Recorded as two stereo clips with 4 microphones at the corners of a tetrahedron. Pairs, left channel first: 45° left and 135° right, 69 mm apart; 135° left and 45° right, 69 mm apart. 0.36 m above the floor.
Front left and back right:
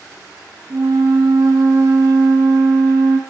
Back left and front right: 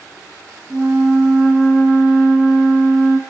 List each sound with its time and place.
0.7 s a flute: 115° right, 2 m